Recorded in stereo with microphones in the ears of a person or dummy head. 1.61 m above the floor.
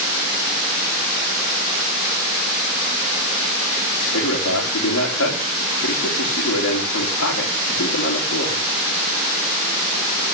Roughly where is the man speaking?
Left.